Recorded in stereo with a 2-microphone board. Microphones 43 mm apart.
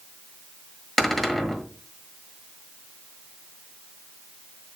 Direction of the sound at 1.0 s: 5° left (ahead or behind).